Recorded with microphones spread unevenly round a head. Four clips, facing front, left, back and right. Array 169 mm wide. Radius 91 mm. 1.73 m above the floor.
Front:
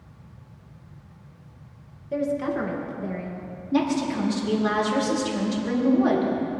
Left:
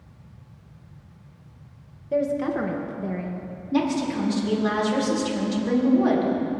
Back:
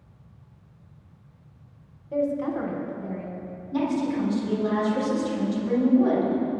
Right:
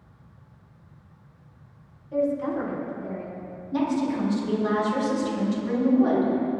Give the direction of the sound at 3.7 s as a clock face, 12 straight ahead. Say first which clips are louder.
Left 1 dB, front 2 dB; 11 o'clock.